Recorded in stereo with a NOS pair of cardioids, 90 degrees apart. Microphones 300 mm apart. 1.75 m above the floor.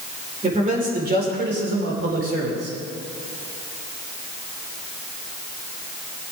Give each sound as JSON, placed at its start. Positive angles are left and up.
{"t": 0.4, "sound": "a man speaking", "azimuth_deg": -25, "distance_m": 5.0}